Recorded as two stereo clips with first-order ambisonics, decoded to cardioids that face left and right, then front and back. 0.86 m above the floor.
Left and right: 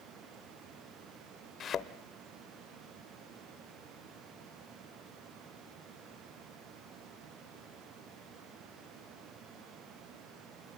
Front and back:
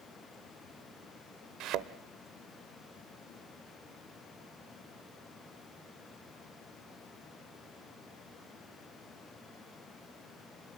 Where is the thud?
150° left, 0.9 m.